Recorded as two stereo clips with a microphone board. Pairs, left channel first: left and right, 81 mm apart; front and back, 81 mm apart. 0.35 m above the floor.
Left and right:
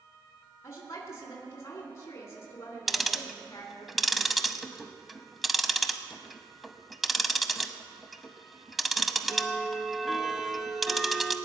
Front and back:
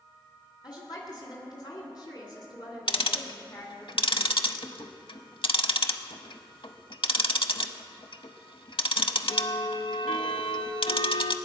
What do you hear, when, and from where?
0.6 s a woman speaking: 35° left, 2.5 m
2.9 s ticking: straight ahead, 0.7 m